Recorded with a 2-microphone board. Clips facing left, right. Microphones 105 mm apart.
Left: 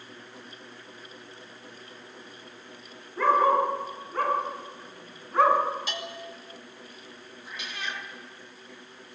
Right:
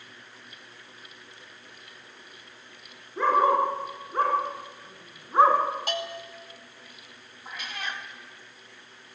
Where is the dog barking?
25° right (ahead or behind), 9.5 m; by 5.6 s 20° right (ahead or behind), 5.5 m.